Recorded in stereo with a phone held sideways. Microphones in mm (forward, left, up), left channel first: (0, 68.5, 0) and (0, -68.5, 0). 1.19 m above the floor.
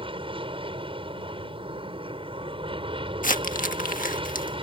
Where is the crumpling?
75° left (ahead or behind).